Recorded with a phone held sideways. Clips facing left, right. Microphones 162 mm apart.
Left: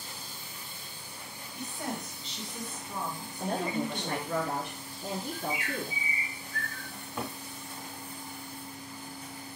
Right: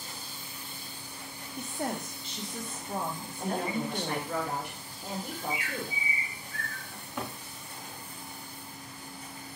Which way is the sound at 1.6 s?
50° right (ahead or behind).